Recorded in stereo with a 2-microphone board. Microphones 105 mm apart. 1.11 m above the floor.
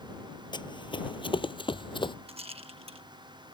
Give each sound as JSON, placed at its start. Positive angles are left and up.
{"t": 0.5, "sound": "running footsteps", "side_deg": 45}
{"t": 2.3, "sound": "a rattle", "side_deg": -70}